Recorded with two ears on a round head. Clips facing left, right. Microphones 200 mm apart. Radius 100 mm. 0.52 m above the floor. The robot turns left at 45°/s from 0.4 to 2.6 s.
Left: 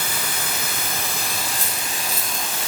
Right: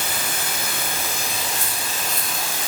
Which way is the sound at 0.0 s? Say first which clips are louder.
Right 1 dB; 85° left.